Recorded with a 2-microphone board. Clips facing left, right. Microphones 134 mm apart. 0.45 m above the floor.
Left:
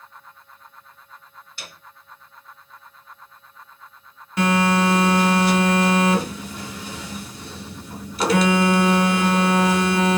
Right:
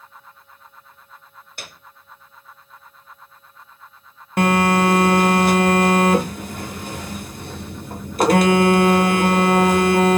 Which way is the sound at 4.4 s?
55° right (ahead or behind).